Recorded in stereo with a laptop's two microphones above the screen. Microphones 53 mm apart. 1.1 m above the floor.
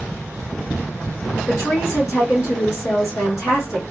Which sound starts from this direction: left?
A woman speaking, at 1.5 s.